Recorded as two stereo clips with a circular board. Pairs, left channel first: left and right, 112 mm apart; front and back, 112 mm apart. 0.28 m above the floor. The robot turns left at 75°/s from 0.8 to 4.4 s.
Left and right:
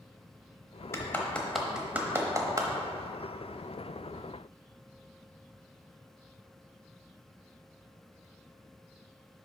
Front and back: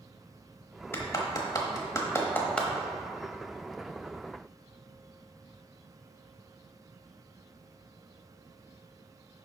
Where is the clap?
50° left, 1.0 m; by 2.7 s 85° right, 1.0 m.